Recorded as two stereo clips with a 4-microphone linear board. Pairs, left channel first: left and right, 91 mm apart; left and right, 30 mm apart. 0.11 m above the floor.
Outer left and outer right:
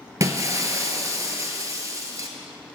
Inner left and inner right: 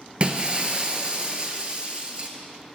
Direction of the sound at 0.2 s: 35° right (ahead or behind).